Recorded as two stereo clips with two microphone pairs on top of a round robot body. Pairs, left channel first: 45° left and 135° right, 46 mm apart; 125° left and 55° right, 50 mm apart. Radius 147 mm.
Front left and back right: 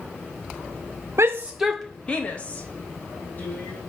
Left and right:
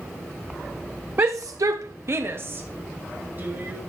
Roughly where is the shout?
Right.